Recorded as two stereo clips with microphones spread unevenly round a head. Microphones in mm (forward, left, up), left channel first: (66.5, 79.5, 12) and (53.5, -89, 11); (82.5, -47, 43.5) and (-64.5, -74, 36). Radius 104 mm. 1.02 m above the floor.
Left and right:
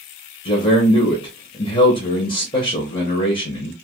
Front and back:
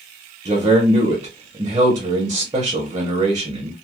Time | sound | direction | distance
0.5 | a man speaking | 135° left | 0.9 m